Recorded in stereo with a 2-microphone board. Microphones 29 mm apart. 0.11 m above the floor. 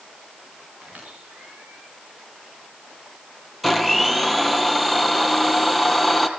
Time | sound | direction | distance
0.8 | a squeak | 70° right (ahead or behind) | 8.5 m
3.6 | a blender | centre (ahead or behind) | 2.5 m